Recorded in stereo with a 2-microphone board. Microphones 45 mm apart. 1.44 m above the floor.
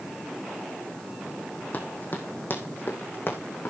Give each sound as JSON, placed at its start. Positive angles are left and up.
{"t": 1.7, "sound": "running footsteps", "side_deg": 35, "distance_m": 3.0}